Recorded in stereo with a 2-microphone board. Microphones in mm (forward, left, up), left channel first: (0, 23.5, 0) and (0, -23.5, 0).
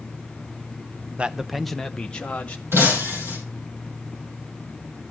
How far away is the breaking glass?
About 4.5 m.